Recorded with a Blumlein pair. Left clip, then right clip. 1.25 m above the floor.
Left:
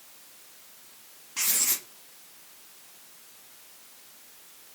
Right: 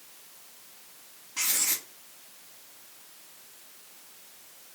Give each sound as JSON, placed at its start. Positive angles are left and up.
{"t": 1.4, "sound": "writing", "azimuth_deg": 10, "distance_m": 0.8}